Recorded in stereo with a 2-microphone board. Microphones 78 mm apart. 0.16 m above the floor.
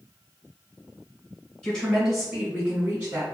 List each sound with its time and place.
1.6 s a woman speaking: 10° left (ahead or behind), 1.1 m; by 3.2 s 30° right (ahead or behind), 1.2 m